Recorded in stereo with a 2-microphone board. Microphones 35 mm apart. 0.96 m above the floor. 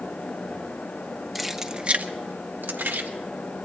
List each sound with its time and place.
1.4 s keys jangling: centre (ahead or behind), 1.1 m; by 3.1 s 70° right (ahead or behind), 1.5 m